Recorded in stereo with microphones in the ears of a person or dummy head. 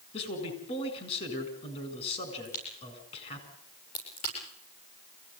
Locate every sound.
0.1 s a man speaking: 35° left (ahead or behind), 8 m
2.5 s a crack: 50° left (ahead or behind), 9 m